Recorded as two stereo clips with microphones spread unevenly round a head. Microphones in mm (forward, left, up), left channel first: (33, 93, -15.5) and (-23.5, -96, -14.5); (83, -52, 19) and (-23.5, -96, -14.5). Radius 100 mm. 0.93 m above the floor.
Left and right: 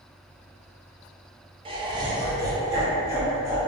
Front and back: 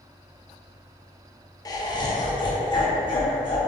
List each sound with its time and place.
1.6 s laughter: 45° right, 0.6 m; by 3.6 s 30° right, 1.6 m